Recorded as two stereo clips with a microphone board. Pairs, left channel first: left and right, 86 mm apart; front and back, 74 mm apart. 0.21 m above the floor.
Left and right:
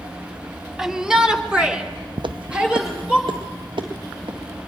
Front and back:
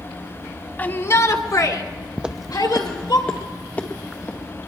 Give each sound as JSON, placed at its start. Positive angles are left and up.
{"t": 0.8, "sound": "a shout", "azimuth_deg": -10, "distance_m": 1.0}
{"t": 2.2, "sound": "footsteps", "azimuth_deg": -105, "distance_m": 0.6}